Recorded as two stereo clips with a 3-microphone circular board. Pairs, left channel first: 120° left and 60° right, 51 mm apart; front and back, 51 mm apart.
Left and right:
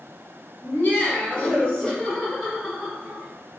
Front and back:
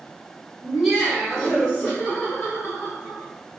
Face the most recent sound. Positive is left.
turn(degrees=10)